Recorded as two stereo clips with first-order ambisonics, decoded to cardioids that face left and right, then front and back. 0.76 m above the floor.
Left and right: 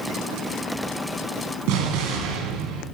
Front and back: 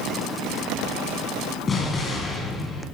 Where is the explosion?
70° right, 2.5 m.